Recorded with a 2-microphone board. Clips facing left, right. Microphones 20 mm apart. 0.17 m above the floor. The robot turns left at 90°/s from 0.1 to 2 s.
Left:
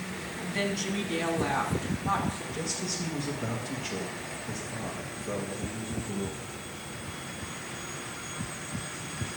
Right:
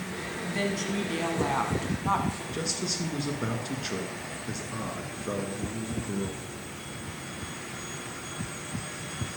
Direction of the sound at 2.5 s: 50° right (ahead or behind).